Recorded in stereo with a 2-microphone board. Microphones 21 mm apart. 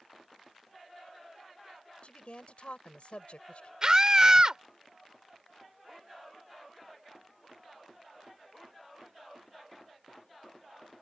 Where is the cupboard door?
No cupboard door in this recording.